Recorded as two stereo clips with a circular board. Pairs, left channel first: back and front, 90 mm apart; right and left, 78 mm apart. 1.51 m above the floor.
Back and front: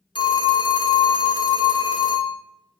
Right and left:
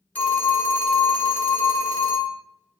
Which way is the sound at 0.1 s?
160° right.